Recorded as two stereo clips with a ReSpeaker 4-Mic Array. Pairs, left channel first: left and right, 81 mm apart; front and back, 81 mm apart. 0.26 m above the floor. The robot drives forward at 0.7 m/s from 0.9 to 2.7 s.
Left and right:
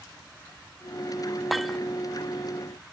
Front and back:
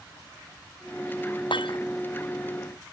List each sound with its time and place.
1.5 s breaking glass: straight ahead